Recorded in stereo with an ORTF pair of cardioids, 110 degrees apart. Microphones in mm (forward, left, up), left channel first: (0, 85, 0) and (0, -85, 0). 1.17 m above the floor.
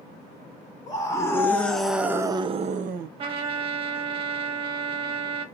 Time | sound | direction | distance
0.9 | a scream | 20° left | 1.5 m
3.2 | a trumpet | 35° right | 1.1 m